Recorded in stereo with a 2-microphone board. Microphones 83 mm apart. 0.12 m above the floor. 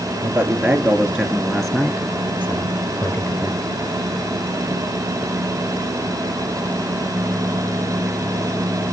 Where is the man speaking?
25° right (ahead or behind), 3 m; by 3.6 s 50° left (ahead or behind), 2.5 m.